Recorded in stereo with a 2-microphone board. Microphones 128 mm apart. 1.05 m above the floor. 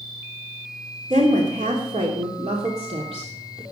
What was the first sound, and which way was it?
A woman speaking, 85° right.